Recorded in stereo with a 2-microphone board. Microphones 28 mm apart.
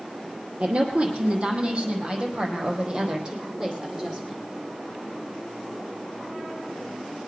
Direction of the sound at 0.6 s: 40° right (ahead or behind).